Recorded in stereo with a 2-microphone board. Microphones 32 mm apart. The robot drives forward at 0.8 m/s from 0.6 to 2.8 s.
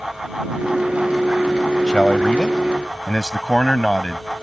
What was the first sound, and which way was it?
A man speaking, 25° left (ahead or behind).